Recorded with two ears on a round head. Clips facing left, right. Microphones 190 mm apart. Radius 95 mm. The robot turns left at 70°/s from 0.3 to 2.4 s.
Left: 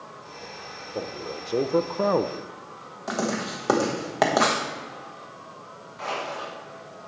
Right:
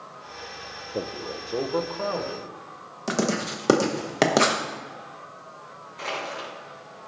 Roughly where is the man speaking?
Behind.